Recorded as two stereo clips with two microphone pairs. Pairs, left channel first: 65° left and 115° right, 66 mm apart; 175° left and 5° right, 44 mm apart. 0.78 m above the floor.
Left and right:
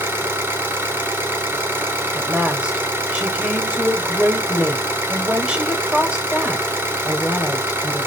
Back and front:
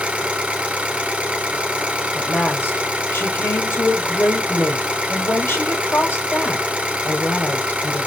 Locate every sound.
0.0 s an engine running: 65° right, 2 m
2.1 s a woman speaking: 170° left, 3 m